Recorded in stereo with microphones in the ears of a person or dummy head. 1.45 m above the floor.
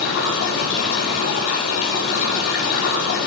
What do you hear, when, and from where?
0.0 s running water: 70° left (ahead or behind), 7 m